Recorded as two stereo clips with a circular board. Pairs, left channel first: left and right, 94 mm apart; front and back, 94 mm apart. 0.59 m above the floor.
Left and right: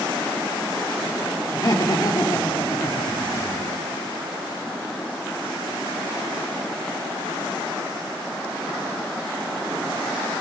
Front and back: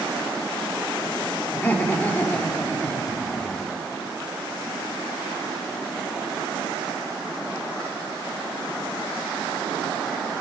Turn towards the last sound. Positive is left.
turn(degrees=65)